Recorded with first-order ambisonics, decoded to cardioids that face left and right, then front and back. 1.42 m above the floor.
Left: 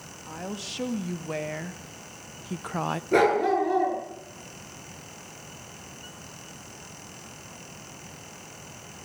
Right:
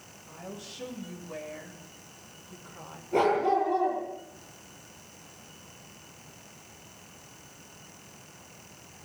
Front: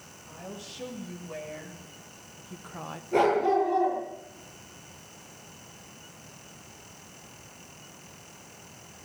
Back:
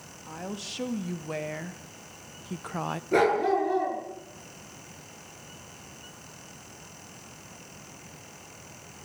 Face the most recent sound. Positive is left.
turn(degrees=125)